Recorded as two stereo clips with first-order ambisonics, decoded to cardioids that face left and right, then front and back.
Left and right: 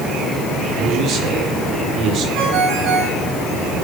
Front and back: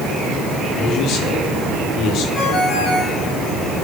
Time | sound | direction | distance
0.8 | a man speaking | 40° right | 4.5 m
2.4 | a ringtone | 60° right | 8.5 m